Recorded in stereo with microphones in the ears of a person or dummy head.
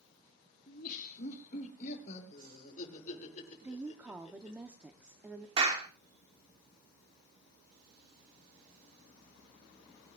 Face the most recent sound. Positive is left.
turn(degrees=-30)  # may be behind; listen again after turning